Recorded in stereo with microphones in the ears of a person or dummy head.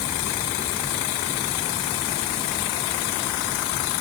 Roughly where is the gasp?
No gasp in this recording.